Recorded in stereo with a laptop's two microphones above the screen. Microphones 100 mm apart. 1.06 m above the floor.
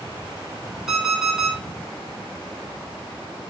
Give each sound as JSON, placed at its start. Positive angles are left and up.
{"t": 0.9, "sound": "an alarm clock", "side_deg": -5, "distance_m": 1.5}